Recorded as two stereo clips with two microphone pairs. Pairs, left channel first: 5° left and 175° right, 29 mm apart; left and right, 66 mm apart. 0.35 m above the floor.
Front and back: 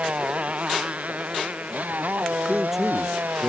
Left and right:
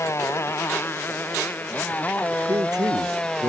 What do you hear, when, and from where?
0.0 s a motorcycle: 135° left; by 3.5 s 165° left
2.5 s a man speaking: 100° right